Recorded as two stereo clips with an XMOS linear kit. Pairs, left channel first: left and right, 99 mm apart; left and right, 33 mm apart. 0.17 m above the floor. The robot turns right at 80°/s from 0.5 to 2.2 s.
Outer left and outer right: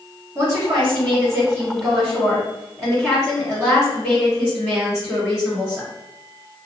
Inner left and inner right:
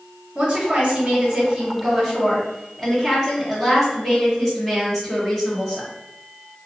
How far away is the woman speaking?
About 1.8 m.